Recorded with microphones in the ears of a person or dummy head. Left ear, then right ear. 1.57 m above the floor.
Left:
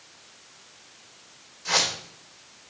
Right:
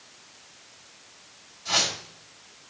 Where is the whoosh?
65° left (ahead or behind), 2.5 m.